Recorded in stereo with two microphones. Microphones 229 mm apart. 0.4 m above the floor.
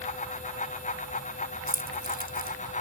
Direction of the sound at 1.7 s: 40° right (ahead or behind).